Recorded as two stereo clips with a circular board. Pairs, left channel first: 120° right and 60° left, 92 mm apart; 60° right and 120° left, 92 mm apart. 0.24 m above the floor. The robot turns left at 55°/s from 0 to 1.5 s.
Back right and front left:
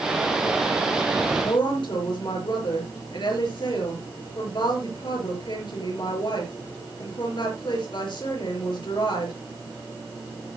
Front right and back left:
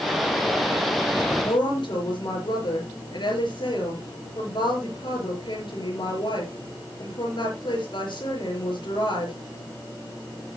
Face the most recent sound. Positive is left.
turn(degrees=-90)